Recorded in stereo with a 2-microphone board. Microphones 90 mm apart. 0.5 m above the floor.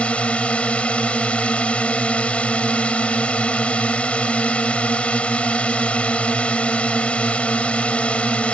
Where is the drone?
15° left (ahead or behind).